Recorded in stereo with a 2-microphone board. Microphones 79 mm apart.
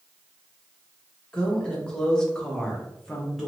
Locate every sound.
1.3 s a woman speaking: 10° left (ahead or behind), 1.1 m; by 3.5 s centre (ahead or behind), 0.9 m